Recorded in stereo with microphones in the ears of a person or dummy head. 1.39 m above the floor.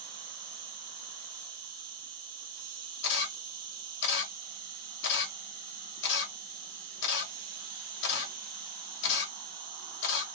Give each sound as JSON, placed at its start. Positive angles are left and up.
{"t": 0.0, "sound": "an insect", "side_deg": -50, "distance_m": 1.2}
{"t": 3.0, "sound": "a camera shutter", "side_deg": 65, "distance_m": 1.2}